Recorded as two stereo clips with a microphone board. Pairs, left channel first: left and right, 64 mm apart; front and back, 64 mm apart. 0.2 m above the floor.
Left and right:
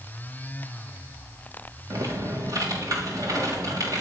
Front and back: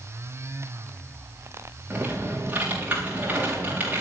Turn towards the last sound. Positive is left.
turn(degrees=-115)